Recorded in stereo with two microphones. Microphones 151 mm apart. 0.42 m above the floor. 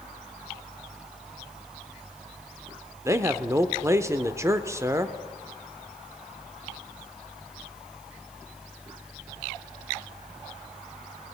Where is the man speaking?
20° right (ahead or behind), 0.7 m.